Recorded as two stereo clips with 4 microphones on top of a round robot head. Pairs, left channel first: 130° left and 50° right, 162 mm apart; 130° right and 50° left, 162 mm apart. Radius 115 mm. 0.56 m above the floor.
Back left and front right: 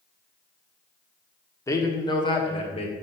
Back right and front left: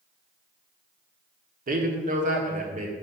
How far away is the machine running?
No machine running in this recording.